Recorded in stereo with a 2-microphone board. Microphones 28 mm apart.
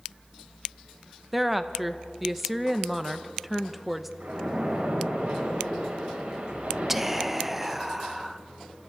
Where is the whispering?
10° right (ahead or behind), 0.8 m.